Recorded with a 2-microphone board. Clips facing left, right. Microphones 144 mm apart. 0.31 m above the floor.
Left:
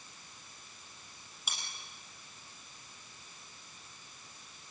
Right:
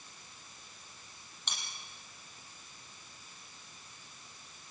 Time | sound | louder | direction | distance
1.5 | cutlery clinking | even | 5° left (ahead or behind) | 6 m